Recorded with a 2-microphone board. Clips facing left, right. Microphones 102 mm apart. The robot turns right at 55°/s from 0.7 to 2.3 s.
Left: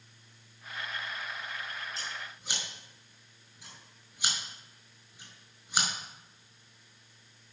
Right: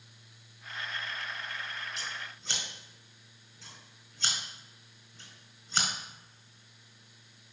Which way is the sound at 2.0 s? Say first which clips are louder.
Even; 35° left (ahead or behind).